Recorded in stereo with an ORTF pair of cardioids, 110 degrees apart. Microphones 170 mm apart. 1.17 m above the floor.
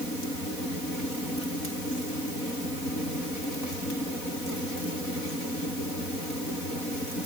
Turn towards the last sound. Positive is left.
No sound to turn to.